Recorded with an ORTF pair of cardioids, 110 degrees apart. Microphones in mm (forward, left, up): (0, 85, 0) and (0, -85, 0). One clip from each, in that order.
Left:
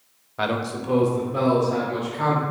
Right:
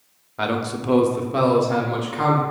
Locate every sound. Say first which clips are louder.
0.4 s a man speaking: right 1 dB; 5° left, 0.5 m; by 2.4 s 65° right, 1.8 m